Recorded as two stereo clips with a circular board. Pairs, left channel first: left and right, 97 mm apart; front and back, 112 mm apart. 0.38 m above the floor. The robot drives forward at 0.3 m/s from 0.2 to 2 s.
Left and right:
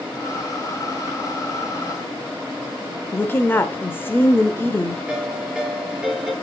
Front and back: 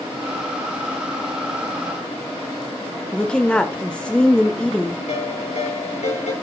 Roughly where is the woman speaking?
Left.